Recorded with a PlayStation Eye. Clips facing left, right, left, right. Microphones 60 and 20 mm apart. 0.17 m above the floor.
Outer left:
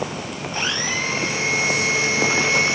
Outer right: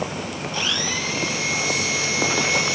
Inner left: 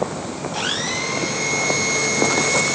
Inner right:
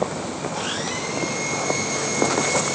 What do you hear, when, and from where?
0.5 s a blender: 35° left (ahead or behind), 2.5 m